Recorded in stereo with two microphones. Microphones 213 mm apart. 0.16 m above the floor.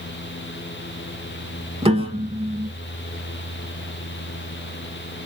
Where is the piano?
25° right (ahead or behind), 0.5 m.